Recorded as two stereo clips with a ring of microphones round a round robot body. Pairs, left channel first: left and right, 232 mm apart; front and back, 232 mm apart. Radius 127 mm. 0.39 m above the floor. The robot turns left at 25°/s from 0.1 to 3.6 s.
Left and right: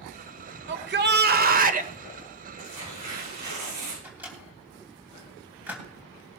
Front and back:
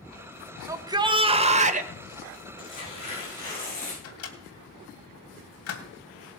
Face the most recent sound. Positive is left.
turn(degrees=-5)